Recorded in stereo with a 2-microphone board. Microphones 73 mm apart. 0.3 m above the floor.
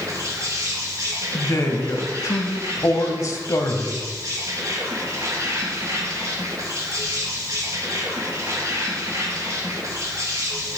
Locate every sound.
0.0 s an insect: 45° right (ahead or behind), 4.5 m
1.3 s a man speaking: 50° left (ahead or behind), 1.3 m